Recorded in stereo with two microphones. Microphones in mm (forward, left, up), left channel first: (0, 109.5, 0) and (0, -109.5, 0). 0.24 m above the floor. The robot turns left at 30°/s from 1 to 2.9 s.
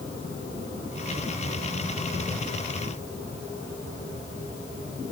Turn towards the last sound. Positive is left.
No sound to turn to.